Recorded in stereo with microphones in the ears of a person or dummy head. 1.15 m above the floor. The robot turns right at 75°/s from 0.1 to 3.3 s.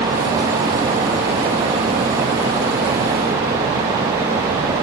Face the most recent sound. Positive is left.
No sound to turn to.